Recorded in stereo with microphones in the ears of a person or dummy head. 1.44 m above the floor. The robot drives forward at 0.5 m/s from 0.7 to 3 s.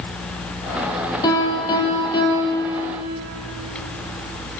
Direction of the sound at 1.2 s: 20° left (ahead or behind).